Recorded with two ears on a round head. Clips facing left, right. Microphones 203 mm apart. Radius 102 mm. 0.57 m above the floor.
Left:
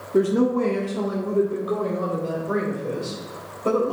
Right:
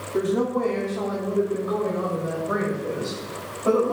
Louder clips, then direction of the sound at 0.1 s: Left 4 dB; 35° left (ahead or behind).